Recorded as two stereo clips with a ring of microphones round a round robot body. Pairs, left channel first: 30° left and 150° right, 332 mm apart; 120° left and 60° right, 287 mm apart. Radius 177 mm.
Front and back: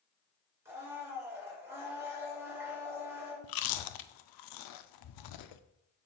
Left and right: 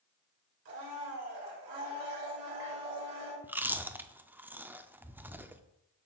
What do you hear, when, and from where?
0.7 s a blender: 65° right, 3 m
3.4 s chewing: 25° left, 0.6 m